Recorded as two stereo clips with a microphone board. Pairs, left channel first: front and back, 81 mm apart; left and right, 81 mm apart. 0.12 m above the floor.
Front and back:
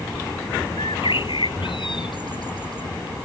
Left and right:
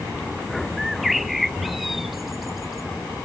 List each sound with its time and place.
0.8 s a bird: straight ahead